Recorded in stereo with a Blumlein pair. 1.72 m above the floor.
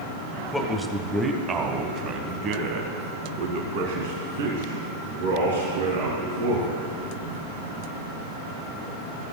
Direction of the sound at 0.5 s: 5° left.